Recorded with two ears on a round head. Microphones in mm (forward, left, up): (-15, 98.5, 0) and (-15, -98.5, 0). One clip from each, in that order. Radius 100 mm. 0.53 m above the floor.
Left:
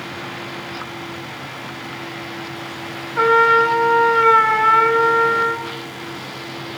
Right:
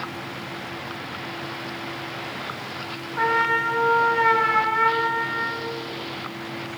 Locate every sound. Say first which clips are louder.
3.2 s a trumpet: left 8 dB; 50° left (ahead or behind), 2.5 m